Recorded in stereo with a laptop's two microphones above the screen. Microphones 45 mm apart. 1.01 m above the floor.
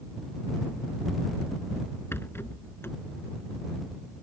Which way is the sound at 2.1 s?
70° left (ahead or behind).